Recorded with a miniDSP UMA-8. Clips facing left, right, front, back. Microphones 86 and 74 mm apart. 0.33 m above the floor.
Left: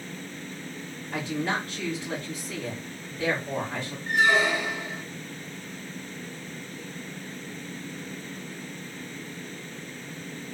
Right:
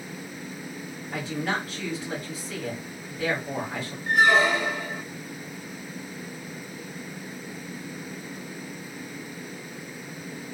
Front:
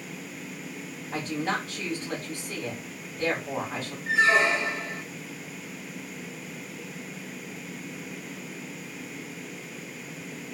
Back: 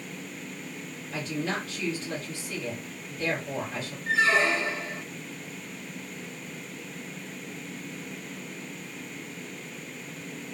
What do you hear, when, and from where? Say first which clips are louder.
1.1 s a woman speaking: even, front 2 dB; 5° right, 1.7 m
4.1 s a squeak: right 3 dB, front 2 dB; 75° right, 1.0 m